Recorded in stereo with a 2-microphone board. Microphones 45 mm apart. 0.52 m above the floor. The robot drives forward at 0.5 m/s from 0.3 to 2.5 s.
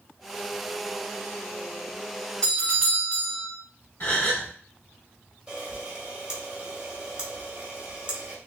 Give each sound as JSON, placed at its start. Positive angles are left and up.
{"t": 2.4, "sound": "a doorbell", "side_deg": 20, "distance_m": 1.4}
{"t": 4.0, "sound": "a gasp", "side_deg": 45, "distance_m": 2.5}
{"t": 5.5, "sound": "a camera shutter", "side_deg": -20, "distance_m": 1.2}